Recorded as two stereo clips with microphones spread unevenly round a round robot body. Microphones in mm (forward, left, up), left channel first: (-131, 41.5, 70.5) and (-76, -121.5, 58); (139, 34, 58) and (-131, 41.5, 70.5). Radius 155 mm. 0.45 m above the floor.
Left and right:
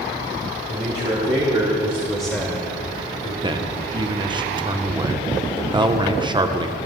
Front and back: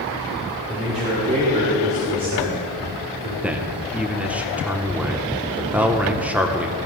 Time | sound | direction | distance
0.7 | a man speaking | 110° right | 3 m
3.4 | a man speaking | 95° right | 0.9 m